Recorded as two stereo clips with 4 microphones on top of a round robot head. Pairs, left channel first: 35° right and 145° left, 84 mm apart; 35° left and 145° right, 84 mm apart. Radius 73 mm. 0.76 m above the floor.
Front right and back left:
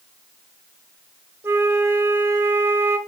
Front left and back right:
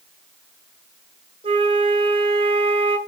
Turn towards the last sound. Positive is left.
turn(degrees=-155)